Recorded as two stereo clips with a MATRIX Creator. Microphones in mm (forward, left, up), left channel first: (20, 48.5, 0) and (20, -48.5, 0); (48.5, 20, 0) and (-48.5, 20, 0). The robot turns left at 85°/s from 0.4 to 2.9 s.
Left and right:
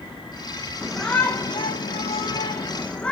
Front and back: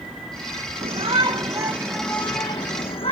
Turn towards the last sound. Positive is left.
turn(degrees=10)